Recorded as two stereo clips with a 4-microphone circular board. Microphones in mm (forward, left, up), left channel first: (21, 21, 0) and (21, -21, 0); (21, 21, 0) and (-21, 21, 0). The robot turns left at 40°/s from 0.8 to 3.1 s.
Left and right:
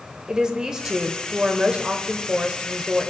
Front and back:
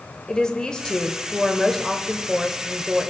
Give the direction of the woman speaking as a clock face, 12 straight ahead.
1 o'clock.